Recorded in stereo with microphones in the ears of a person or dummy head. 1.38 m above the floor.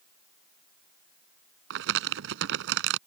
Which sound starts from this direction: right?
Crumpling, at 1.7 s.